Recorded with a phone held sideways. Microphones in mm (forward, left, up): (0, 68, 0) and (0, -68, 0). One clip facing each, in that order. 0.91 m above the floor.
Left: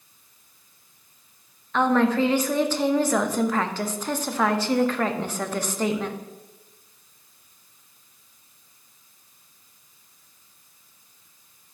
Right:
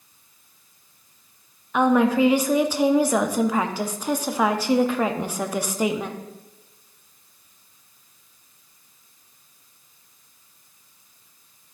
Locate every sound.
1.7 s a woman speaking: 10° right (ahead or behind), 0.6 m